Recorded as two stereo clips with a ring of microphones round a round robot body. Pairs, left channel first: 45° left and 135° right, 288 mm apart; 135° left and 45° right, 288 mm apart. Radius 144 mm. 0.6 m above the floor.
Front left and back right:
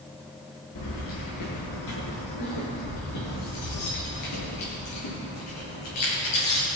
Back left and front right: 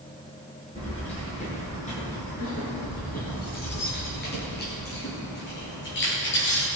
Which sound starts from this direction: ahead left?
Keys jangling, at 0.8 s.